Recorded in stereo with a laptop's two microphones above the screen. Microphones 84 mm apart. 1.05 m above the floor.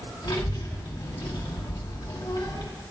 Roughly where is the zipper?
No zipper in this recording.